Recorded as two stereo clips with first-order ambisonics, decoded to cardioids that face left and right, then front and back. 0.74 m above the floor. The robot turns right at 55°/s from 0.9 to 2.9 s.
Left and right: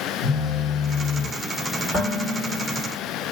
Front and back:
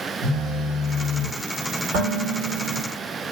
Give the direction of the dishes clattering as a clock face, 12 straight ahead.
6 o'clock.